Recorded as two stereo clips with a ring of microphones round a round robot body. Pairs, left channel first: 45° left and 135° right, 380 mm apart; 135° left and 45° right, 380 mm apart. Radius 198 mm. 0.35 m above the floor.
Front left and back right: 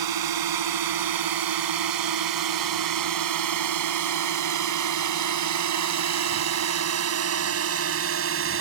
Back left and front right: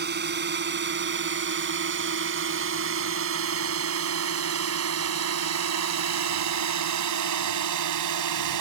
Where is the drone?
110° right; by 8.6 s 80° right.